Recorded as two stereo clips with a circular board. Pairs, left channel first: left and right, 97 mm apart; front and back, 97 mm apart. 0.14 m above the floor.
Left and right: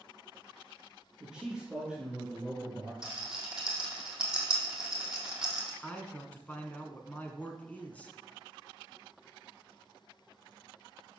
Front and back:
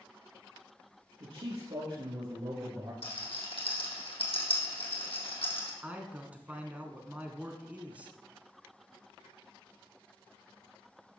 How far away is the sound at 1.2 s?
About 3 m.